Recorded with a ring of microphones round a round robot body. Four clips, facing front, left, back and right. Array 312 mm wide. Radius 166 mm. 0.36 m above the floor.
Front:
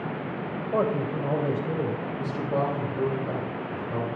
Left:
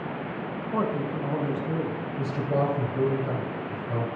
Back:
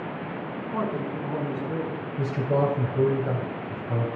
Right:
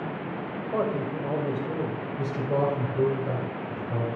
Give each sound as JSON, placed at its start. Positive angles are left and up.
{"t": 0.7, "sound": "a man speaking", "azimuth_deg": -30, "distance_m": 2.5}
{"t": 2.2, "sound": "a man speaking", "azimuth_deg": -165, "distance_m": 3.0}